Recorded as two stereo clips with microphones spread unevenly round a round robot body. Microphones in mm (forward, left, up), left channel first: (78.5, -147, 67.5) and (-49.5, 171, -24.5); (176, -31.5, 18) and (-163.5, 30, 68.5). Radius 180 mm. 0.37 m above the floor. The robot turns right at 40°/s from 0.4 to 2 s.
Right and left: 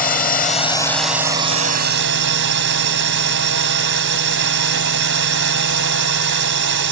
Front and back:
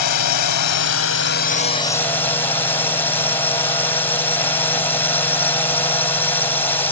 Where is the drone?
5° left; by 6.9 s 70° left.